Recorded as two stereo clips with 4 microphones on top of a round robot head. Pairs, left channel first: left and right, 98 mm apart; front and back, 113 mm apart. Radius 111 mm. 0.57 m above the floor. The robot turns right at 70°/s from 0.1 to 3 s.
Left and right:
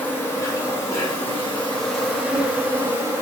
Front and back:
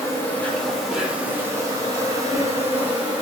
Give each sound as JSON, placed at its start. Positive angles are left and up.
{"t": 0.0, "sound": "an insect", "azimuth_deg": 45, "distance_m": 1.5}